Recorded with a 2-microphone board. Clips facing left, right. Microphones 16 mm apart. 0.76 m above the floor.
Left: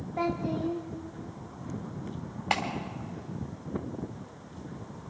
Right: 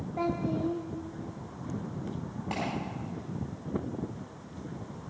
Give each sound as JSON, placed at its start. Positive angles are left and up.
{"t": 0.2, "sound": "a child speaking", "side_deg": 25, "distance_m": 0.8}
{"t": 2.5, "sound": "a clap", "side_deg": 60, "distance_m": 3.0}